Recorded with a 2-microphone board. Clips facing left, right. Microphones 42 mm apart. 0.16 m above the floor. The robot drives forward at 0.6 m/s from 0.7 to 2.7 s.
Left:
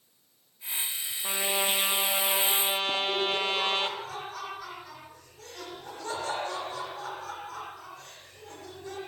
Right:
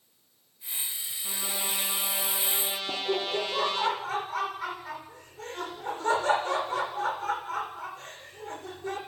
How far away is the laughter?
About 7.5 m.